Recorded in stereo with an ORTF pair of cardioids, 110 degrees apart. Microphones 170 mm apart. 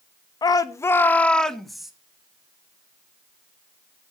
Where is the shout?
25° left, 1.1 m; by 1.9 s straight ahead, 1.5 m.